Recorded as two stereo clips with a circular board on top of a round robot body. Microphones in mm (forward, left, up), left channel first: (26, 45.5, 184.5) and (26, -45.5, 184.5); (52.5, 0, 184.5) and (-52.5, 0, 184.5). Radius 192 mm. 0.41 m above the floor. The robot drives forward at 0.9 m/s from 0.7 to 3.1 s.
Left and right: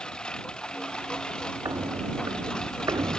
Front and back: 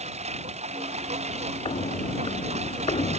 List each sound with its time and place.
0.0 s a lawn mower: 170° left
1.6 s footsteps: 40° right